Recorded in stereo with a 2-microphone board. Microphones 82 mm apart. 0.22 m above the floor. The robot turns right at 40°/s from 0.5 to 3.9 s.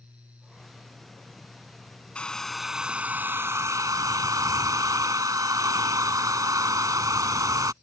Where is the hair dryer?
165° left; by 7.7 s 125° right.